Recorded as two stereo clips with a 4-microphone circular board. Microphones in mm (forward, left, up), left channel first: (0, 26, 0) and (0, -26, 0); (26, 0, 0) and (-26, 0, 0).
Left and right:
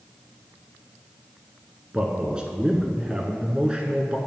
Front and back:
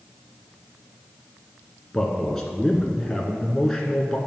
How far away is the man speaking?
About 1.1 m.